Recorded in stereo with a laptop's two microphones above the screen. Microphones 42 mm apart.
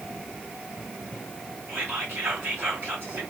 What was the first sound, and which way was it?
Whispering, 60° right (ahead or behind).